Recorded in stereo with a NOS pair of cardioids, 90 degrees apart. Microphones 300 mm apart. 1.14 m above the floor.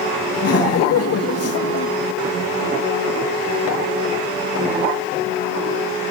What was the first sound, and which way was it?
Laughter, 55° left.